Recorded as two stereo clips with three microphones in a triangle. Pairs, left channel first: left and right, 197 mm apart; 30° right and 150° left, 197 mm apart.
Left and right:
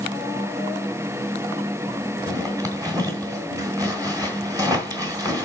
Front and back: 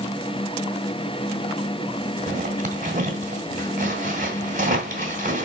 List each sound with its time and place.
2.3 s a zipper: 160° right, 2 m